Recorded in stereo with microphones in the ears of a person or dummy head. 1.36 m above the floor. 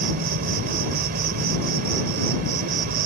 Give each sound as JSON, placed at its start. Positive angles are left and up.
{"t": 0.0, "sound": "an insect", "side_deg": -50}